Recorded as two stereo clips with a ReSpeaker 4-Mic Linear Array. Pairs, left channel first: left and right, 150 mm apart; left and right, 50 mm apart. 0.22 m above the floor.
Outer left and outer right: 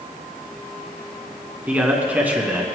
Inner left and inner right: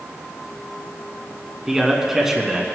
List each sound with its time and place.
1.7 s a man speaking: 10° right (ahead or behind), 2 m